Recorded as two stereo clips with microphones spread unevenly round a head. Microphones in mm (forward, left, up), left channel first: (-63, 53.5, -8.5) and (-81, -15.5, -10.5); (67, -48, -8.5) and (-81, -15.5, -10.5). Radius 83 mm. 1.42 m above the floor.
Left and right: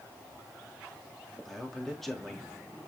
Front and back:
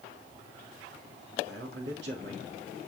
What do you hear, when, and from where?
1.4 s a man speaking: 160° left, 3 m